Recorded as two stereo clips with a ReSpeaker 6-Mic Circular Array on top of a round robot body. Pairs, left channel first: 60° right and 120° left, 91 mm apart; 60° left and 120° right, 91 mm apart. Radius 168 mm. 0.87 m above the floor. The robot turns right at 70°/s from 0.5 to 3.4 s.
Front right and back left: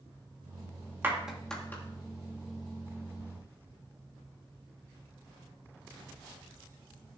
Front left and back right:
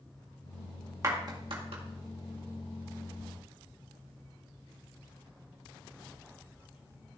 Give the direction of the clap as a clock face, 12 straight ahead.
6 o'clock.